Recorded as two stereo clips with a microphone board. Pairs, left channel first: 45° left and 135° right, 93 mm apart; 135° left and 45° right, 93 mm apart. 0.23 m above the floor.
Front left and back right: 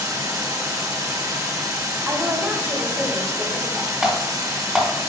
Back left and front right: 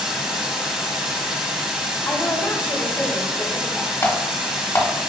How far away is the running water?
About 1.4 m.